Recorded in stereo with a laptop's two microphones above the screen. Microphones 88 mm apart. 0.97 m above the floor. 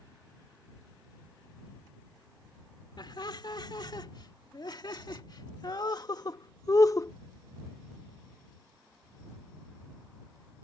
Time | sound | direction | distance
3.0 | laughter | 60° left (ahead or behind) | ?